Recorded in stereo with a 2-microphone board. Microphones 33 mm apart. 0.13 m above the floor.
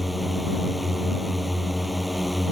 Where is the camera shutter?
I don't hear a camera shutter.